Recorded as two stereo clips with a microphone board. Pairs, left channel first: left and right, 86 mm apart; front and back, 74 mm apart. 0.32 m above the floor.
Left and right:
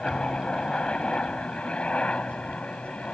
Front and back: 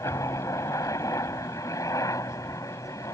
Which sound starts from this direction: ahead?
A helicopter, at 0.0 s.